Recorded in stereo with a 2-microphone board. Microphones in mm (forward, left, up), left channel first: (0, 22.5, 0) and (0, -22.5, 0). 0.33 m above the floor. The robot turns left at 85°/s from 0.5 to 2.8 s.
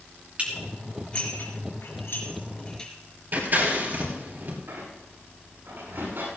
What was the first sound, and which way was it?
Dishes clattering, 30° right (ahead or behind).